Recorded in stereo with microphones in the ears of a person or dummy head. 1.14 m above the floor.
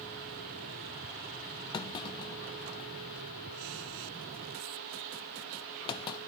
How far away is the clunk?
About 0.6 m.